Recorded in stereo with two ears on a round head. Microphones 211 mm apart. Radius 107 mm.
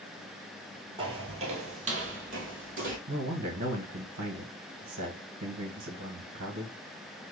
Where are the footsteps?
20° right (ahead or behind), 1.3 m; by 3.0 s 35° right (ahead or behind), 2 m.